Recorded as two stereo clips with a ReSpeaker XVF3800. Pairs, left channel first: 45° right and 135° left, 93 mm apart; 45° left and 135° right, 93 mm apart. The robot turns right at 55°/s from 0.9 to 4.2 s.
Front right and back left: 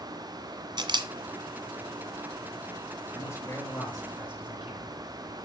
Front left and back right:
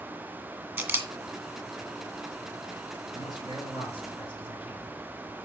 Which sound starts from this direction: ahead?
A man speaking, at 3.1 s.